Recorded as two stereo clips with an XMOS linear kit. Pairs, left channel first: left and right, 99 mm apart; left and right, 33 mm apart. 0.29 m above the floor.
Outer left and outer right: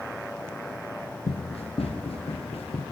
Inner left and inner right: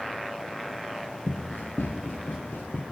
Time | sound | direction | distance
1.3 | running footsteps | 80° left | 4.5 m